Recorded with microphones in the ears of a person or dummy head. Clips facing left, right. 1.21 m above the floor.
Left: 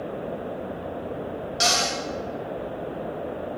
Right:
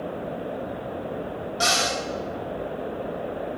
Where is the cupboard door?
30° left (ahead or behind), 1.1 m.